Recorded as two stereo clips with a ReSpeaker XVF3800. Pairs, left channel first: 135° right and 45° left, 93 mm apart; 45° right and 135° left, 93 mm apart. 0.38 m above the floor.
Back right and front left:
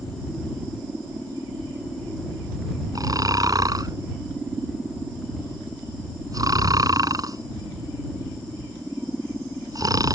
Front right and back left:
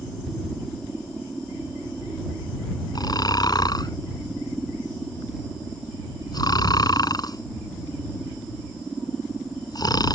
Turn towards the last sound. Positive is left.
turn(degrees=0)